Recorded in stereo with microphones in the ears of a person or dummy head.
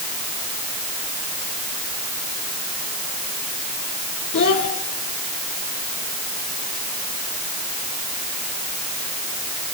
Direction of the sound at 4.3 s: 40° left (ahead or behind).